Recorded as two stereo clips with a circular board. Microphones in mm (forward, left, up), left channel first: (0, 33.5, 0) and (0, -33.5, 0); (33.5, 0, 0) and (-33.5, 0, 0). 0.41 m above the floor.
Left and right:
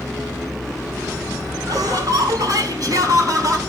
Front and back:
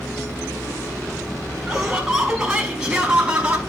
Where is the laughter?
100° right, 4.5 m; by 3.6 s 110° right, 4 m.